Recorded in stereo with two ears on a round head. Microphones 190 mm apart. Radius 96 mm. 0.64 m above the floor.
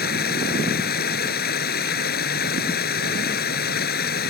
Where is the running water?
45° left (ahead or behind).